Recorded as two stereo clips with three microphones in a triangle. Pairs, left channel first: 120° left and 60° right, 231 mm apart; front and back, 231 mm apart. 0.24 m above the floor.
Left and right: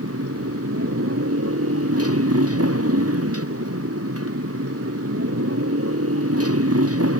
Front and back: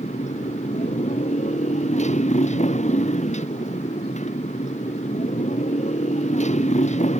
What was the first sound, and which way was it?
A motorcycle, 60° right.